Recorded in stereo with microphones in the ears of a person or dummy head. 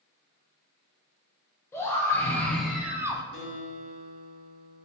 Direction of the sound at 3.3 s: 70° left (ahead or behind).